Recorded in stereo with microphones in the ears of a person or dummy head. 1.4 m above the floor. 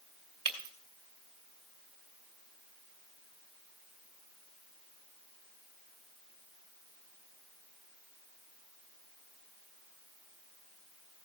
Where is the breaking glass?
25° right (ahead or behind), 2 m.